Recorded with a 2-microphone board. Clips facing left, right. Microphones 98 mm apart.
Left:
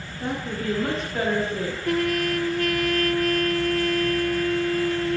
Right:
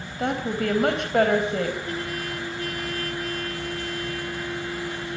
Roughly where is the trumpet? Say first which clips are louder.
Left 8 dB; left.